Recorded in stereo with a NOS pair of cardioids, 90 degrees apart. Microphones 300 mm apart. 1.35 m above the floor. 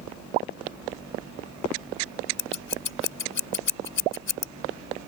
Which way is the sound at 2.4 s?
40° left.